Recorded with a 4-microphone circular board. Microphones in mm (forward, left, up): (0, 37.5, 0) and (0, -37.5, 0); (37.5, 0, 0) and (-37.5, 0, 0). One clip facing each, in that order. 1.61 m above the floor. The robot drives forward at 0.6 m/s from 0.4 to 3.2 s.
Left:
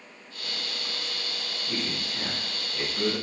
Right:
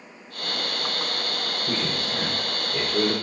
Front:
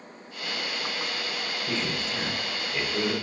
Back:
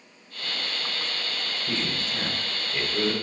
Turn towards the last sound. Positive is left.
turn(degrees=-95)